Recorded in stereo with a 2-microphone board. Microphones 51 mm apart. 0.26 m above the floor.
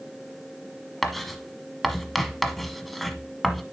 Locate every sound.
1.0 s writing: centre (ahead or behind), 1.0 m